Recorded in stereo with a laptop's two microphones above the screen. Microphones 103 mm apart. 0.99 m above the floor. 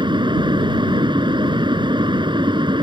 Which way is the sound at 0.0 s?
50° right (ahead or behind).